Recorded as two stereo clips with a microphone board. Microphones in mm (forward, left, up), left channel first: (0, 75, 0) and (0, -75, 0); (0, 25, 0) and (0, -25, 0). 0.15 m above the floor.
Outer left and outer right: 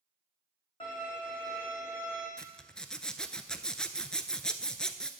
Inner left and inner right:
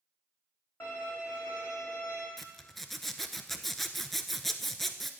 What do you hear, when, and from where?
0.8 s a violin: 35° left (ahead or behind), 4 m
2.4 s a zipper: 5° left (ahead or behind), 0.5 m